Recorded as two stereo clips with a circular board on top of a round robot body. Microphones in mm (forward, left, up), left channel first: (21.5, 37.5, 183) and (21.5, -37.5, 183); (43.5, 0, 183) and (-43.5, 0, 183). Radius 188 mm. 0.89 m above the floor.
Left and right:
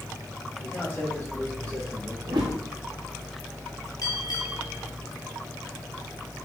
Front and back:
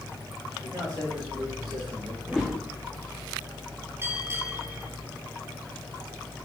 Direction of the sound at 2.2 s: 95° right.